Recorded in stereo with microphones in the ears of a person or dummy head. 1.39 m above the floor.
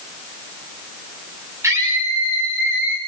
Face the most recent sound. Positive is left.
turn(degrees=-10)  # may be behind; listen again after turning